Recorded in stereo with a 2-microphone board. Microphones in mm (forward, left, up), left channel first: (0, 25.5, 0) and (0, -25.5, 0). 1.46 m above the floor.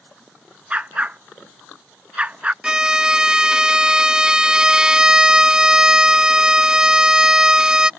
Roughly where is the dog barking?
Right.